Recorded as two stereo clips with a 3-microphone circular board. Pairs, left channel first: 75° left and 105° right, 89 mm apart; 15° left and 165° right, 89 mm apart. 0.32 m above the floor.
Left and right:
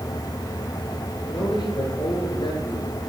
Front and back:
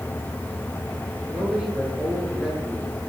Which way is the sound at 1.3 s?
110° left.